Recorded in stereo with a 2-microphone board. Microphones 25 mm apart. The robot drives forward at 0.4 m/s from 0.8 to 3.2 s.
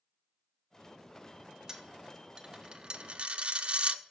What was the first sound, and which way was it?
A dropped coin, 20° right (ahead or behind).